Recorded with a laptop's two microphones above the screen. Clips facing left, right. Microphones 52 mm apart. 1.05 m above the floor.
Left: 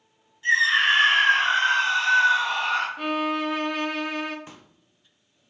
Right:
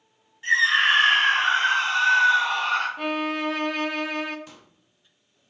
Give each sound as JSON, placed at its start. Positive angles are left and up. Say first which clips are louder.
{"t": 0.4, "sound": "a scream", "louder": "even", "side_deg": -35, "distance_m": 2.5}
{"t": 3.0, "sound": "a violin", "louder": "left 1 dB", "side_deg": 0, "distance_m": 0.5}
{"t": 4.5, "sound": "a pop", "louder": "left 2 dB", "side_deg": 30, "distance_m": 0.6}